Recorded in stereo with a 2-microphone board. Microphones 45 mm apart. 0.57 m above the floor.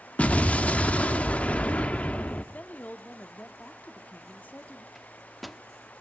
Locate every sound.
0.2 s an explosion: 30° left (ahead or behind), 0.9 m
2.5 s a woman speaking: 35° left (ahead or behind), 0.9 m
5.0 s a microwave: centre (ahead or behind), 0.6 m